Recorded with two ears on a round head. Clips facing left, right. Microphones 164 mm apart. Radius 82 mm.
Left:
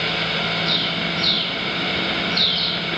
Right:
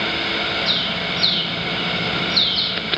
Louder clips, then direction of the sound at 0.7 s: Left 1 dB; 60° right (ahead or behind).